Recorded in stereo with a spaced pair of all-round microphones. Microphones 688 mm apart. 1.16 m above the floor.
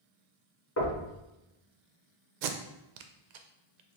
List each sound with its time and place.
0.8 s knocking: 20° left (ahead or behind), 0.7 m
2.4 s tape being pulled: 85° right, 0.5 m